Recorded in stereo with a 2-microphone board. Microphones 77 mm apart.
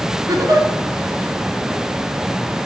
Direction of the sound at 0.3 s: 55° right (ahead or behind).